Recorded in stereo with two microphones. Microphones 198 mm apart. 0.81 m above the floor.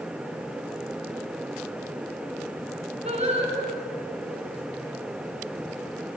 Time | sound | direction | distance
3.0 | singing | 35° right (ahead or behind) | 4.5 m